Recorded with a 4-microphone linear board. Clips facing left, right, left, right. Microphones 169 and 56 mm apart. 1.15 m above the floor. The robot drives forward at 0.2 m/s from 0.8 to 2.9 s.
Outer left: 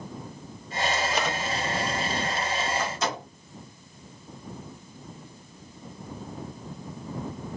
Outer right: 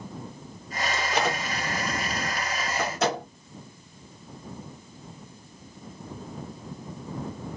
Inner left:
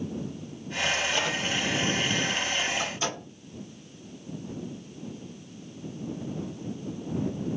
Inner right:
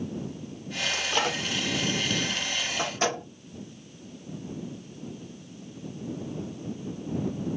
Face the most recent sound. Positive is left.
turn(degrees=-85)